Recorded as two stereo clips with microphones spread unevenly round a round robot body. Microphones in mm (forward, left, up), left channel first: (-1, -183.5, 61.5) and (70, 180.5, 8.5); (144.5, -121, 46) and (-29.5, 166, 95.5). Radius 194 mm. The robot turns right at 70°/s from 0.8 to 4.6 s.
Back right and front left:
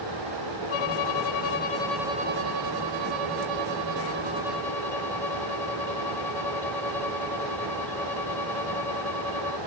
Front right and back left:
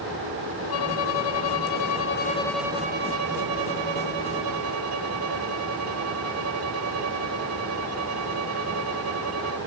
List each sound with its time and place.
0.7 s a violin: 90° right; by 9.6 s 175° left